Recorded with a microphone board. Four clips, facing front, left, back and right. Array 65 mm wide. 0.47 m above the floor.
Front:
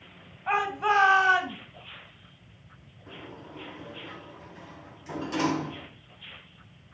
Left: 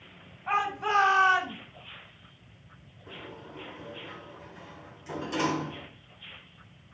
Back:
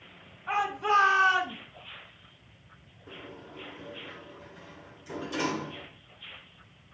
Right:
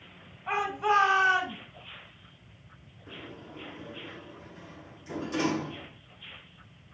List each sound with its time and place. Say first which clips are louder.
0.5 s a shout: even, front 2 dB; 10° left, 3 m; by 1.6 s 25° left, 3 m
3.1 s a sliding door: left 1 dB, front 1 dB; 35° left, 3 m